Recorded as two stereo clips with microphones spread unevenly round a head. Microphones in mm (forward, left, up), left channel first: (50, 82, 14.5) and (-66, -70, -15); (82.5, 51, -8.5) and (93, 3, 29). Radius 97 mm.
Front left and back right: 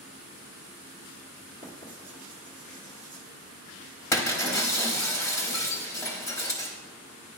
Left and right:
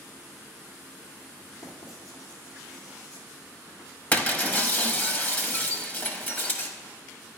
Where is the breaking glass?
5° left, 1.0 m.